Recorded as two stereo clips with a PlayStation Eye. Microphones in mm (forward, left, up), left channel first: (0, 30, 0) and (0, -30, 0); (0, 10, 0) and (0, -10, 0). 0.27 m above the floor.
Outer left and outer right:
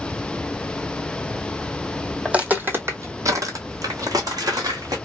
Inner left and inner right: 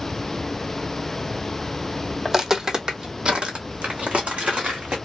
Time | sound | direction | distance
2.2 | footsteps | 15° right (ahead or behind) | 0.8 m